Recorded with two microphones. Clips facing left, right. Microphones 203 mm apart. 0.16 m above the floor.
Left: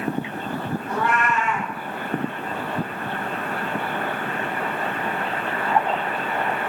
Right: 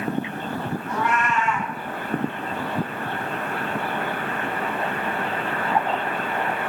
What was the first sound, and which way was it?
A cat meowing, 30° left (ahead or behind).